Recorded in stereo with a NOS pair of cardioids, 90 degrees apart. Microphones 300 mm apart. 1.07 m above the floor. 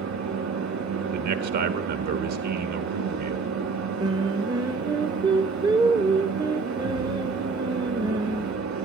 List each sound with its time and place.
0.0 s a fan: 65° right, 2.5 m
1.1 s a man speaking: 70° right, 1.4 m
4.0 s singing: 15° right, 0.6 m